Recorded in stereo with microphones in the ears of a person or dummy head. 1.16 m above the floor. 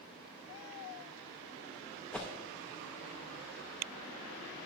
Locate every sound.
2.1 s a whoosh: 5° left (ahead or behind), 0.6 m